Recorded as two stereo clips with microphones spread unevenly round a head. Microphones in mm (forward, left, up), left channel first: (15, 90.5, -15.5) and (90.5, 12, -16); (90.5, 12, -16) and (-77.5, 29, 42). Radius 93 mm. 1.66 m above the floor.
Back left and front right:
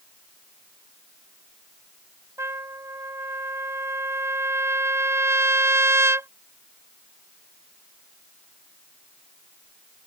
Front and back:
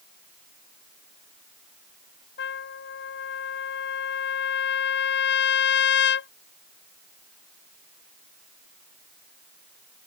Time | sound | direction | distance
2.4 | a trumpet | 20° left | ?